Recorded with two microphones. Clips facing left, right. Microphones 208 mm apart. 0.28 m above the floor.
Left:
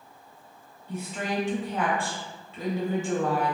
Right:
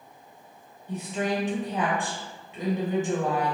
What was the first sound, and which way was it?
A woman speaking, 20° right (ahead or behind).